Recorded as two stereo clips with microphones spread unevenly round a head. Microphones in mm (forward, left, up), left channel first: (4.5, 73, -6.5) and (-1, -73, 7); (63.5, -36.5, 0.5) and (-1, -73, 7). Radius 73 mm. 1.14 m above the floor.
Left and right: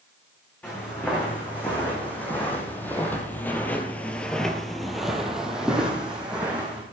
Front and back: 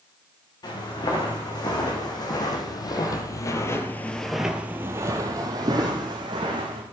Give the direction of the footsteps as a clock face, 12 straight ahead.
12 o'clock.